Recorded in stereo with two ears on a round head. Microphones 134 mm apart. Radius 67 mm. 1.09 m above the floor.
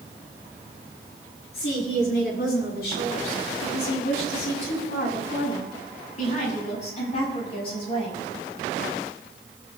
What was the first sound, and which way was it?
A woman speaking, 80° left.